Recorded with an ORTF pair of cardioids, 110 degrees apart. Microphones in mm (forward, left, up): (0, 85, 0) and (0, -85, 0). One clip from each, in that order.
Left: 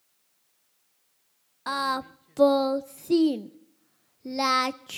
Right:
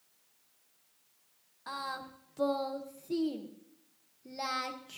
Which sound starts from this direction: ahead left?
Singing, at 1.7 s.